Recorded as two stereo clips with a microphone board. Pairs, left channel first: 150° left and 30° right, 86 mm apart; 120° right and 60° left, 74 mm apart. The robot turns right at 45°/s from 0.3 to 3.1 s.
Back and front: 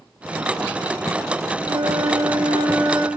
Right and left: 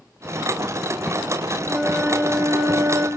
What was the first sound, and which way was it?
A flute, 30° right.